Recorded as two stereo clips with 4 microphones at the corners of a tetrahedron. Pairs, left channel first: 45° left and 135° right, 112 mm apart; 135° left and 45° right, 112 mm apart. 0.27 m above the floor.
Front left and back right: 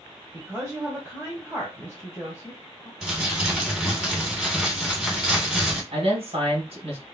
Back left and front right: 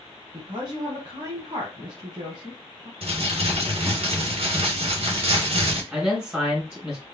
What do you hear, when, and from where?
0.3 s a woman speaking: 75° right, 1.8 m
3.0 s crumpling: 55° right, 2.5 m
5.9 s a man speaking: 125° right, 2.5 m